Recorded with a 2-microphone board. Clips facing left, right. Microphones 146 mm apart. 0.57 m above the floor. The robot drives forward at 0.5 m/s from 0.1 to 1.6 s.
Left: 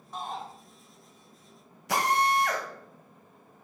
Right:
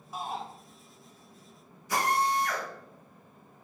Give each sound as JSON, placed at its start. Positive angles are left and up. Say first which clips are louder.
{"t": 0.1, "sound": "a shout", "louder": "right 1 dB", "side_deg": -5, "distance_m": 1.7}
{"t": 1.9, "sound": "a drill", "louder": "left 2 dB", "side_deg": 80, "distance_m": 2.0}